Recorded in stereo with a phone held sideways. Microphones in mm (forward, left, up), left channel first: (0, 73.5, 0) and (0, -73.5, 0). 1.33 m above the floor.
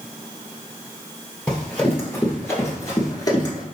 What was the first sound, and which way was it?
Running footsteps, 10° left (ahead or behind).